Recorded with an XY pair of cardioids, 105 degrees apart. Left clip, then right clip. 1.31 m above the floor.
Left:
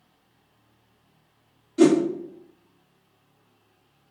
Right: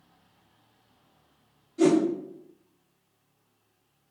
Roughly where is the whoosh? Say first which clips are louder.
Left 4 dB; left.